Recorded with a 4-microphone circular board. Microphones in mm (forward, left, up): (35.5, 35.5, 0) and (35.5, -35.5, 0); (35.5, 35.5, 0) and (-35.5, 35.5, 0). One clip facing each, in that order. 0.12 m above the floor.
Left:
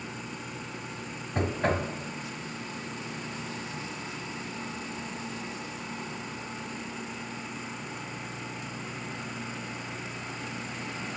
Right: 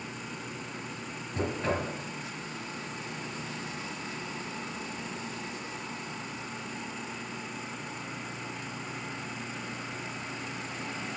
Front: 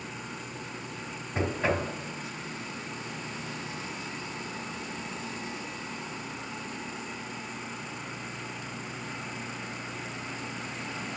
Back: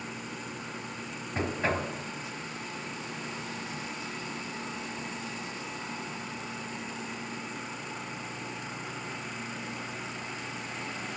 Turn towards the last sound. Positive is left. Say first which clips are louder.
# left 3 dB, front 2 dB
turn(degrees=85)